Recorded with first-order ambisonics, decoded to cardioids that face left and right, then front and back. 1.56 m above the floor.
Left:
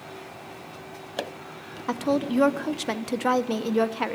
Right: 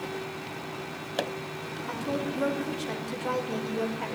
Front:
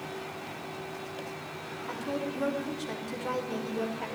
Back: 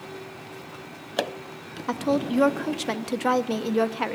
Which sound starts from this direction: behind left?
A woman speaking, at 1.9 s.